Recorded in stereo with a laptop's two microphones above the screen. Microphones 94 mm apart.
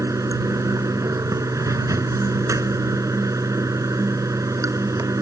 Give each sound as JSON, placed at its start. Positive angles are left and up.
{"t": 0.0, "sound": "running water", "side_deg": -35}